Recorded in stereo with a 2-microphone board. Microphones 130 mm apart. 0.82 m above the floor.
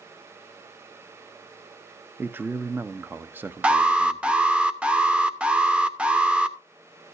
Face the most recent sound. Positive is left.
turn(degrees=-10)  # may be behind; listen again after turning